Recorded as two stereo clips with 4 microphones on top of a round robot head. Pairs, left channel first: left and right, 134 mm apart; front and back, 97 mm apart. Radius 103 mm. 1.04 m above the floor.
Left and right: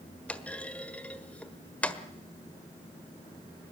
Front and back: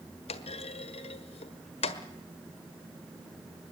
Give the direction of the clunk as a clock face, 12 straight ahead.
12 o'clock.